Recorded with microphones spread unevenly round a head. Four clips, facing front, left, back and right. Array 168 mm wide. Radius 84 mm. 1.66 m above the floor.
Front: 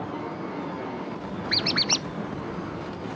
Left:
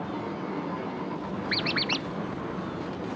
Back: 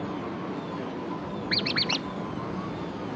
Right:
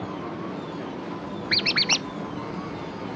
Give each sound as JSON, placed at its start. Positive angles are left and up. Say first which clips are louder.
{"t": 1.5, "sound": "a squeak", "louder": "right 2 dB, front 2 dB", "azimuth_deg": -50}